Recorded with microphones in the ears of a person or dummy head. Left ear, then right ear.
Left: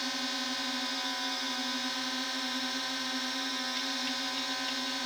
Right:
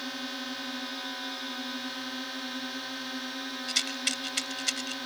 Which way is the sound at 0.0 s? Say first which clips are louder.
Left 3 dB; 20° left (ahead or behind).